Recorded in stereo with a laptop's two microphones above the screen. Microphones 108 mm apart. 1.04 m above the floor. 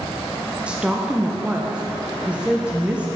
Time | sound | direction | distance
0.7 | a woman speaking | 10° right (ahead or behind) | 0.7 m